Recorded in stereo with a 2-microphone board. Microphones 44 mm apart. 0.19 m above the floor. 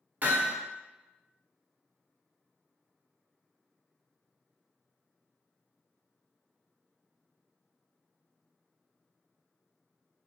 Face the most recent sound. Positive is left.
turn(degrees=-45)  # may be behind; listen again after turning